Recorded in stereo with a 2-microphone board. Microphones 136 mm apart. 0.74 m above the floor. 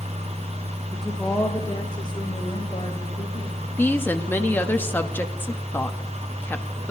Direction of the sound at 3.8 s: 15° left (ahead or behind).